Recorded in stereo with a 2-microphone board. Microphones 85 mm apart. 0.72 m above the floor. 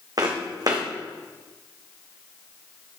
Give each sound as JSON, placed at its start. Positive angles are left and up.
{"t": 0.2, "sound": "footsteps", "side_deg": -45, "distance_m": 2.5}